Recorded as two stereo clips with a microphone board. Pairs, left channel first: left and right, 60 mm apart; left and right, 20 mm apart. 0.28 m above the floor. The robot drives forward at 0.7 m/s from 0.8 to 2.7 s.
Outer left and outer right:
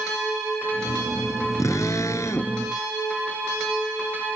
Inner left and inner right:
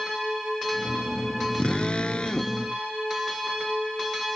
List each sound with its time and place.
1.6 s a drill: 60° left (ahead or behind); by 2.6 s 55° left (ahead or behind)